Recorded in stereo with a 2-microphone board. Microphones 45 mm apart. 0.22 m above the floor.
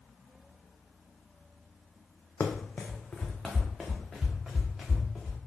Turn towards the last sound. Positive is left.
turn(degrees=-10)  # may be behind; listen again after turning